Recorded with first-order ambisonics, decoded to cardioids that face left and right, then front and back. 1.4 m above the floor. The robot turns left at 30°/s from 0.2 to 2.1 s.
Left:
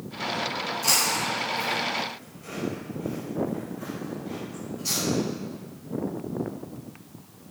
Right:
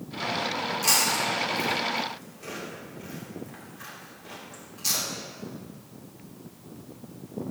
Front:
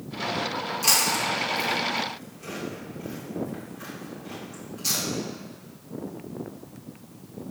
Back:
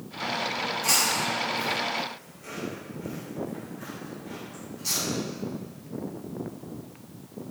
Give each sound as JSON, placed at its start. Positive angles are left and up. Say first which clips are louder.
{"t": 0.8, "sound": "chewing", "louder": "even, front 2 dB", "azimuth_deg": -20, "distance_m": 2.5}